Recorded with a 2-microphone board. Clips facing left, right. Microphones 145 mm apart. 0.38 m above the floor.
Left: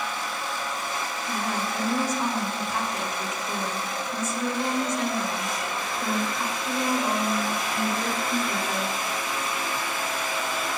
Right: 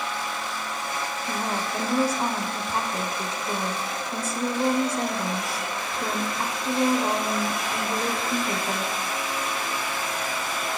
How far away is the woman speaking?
About 1.0 m.